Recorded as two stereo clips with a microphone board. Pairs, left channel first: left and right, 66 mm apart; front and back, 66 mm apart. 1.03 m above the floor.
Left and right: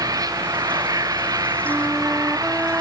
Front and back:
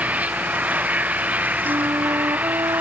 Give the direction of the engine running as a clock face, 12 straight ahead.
4 o'clock.